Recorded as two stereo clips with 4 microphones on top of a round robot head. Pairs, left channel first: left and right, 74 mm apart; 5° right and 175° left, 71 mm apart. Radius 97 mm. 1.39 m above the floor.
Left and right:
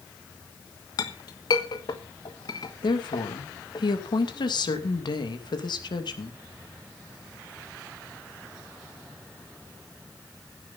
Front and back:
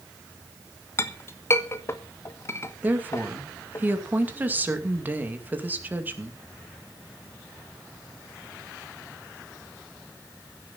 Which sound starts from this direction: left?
A woman speaking, at 2.8 s.